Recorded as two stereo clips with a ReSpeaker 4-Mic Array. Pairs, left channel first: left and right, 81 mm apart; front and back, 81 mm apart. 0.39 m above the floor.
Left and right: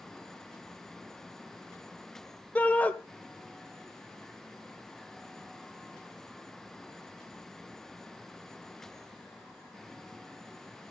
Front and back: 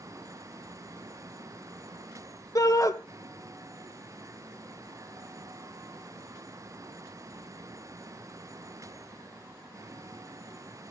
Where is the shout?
25° left, 1.2 m.